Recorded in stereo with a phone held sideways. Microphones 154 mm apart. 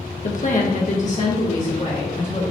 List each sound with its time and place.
0.2 s a woman speaking: 55° left (ahead or behind), 1.0 m; by 2.5 s 50° left (ahead or behind), 2.5 m